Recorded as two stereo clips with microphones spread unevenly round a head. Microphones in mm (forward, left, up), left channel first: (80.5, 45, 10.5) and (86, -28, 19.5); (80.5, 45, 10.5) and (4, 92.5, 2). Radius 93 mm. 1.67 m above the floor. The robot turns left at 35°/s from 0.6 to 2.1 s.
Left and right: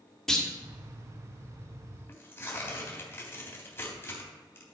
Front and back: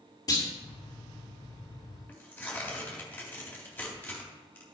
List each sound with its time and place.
0.3 s a clunk: 5° left, 2 m
2.1 s tearing paper: 40° left, 3 m; by 4.8 s 35° left, 3 m